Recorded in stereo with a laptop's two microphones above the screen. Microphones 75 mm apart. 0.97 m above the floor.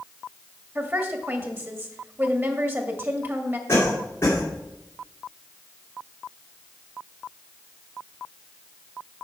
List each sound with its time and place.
0.8 s a woman speaking: 30° right (ahead or behind), 1.7 m
3.7 s a cough: 35° left (ahead or behind), 2.5 m